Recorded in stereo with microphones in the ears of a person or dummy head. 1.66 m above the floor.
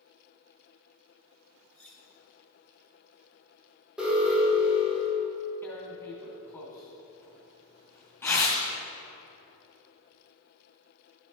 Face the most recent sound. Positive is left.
turn(degrees=10)  # may be behind; listen again after turning